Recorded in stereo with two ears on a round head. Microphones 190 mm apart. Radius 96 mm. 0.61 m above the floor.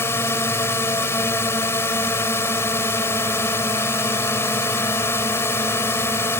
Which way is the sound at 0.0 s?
10° left (ahead or behind).